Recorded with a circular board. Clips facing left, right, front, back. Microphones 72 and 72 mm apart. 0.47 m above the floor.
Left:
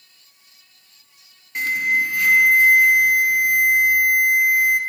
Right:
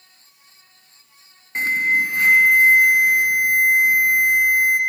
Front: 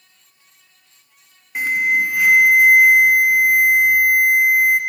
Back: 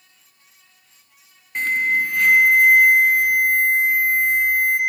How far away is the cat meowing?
No cat meowing in this recording.